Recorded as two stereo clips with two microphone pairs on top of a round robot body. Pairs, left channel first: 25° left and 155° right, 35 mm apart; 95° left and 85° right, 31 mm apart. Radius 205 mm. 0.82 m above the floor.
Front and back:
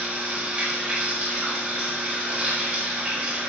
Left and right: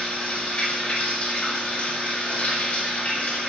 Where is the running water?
135° left, 4.5 m.